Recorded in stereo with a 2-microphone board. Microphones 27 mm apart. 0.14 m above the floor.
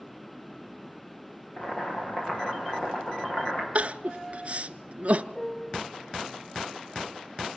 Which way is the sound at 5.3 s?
25° left (ahead or behind).